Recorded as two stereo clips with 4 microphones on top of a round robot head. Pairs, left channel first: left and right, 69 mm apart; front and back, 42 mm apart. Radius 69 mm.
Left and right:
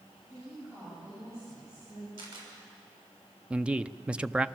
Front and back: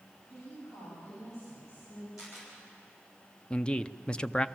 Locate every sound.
0.3 s a woman speaking: 35° right, 8.5 m; by 2.1 s 25° right, 9.5 m
2.2 s a camera shutter: 95° right, 6.5 m
3.5 s a man speaking: 35° right, 0.6 m